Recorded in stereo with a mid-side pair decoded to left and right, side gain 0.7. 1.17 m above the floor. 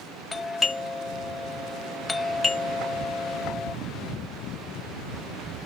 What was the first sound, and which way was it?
A doorbell, 20° left.